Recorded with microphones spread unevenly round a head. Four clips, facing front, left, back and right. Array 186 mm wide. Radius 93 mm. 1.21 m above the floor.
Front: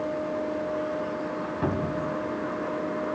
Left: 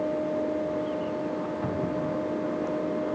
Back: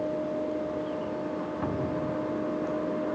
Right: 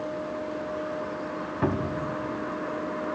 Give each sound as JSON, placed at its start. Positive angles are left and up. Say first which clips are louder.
{"t": 1.6, "sound": "a cupboard door", "louder": "right 4 dB, front 3 dB", "azimuth_deg": -70, "distance_m": 2.5}